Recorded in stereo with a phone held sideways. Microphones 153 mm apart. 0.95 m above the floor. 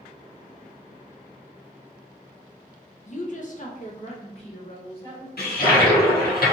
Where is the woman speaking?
50° left (ahead or behind), 0.5 m; by 5.3 s 35° left (ahead or behind), 1.5 m.